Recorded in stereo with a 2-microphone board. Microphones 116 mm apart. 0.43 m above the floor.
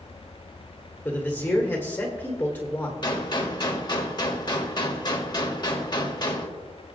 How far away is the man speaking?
About 1.4 m.